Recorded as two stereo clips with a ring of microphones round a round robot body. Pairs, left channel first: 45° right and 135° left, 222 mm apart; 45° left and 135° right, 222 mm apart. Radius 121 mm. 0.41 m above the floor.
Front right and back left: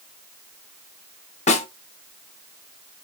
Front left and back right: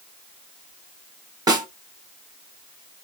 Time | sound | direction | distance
1.5 | a snare drum | 75° right | 1.2 m